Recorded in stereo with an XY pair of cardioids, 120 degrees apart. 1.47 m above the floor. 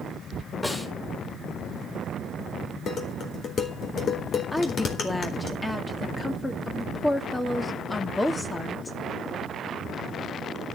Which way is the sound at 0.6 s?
15° left.